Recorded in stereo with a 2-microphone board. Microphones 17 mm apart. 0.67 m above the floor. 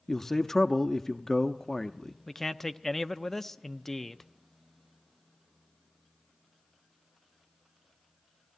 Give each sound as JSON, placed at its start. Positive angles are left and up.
{"t": 0.1, "sound": "a man speaking", "side_deg": 25, "distance_m": 0.7}
{"t": 2.3, "sound": "a man speaking", "side_deg": 15, "distance_m": 0.6}